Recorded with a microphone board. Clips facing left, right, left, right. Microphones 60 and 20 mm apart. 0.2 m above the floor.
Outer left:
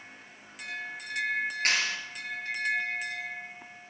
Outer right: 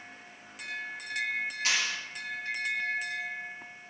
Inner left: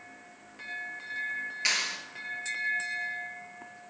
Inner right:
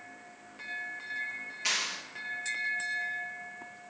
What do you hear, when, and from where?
1.6 s a clap: 50° left (ahead or behind), 3 m